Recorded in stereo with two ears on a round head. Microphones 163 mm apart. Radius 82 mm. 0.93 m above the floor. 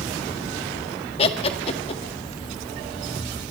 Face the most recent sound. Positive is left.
turn(degrees=35)  # may be behind; listen again after turning